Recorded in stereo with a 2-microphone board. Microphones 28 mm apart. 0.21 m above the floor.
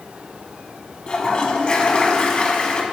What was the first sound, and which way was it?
A toilet flushing, 35° left (ahead or behind).